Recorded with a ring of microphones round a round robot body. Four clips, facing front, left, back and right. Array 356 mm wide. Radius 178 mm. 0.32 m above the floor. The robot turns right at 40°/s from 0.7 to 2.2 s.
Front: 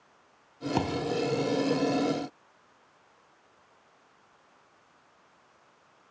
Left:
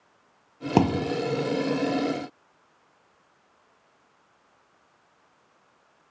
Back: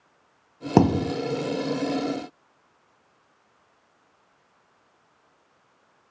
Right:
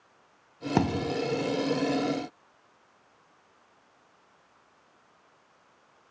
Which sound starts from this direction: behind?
A thud, at 0.8 s.